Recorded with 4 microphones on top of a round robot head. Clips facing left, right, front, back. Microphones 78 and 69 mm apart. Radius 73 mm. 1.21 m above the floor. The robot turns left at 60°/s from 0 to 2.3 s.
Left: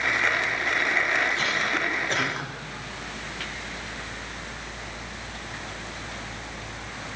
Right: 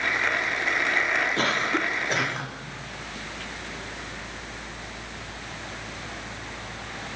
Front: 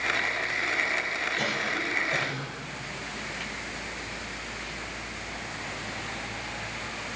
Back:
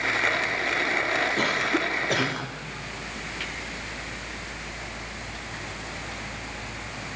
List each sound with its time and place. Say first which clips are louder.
1.4 s a cough: right 1 dB, back 5 dB; 130° right, 3.5 m; by 2.5 s 175° left, 3.5 m